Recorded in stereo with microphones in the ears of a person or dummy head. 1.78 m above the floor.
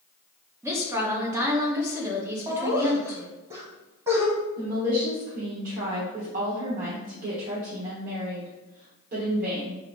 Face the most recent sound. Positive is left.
turn(degrees=-45)  # may be behind; listen again after turning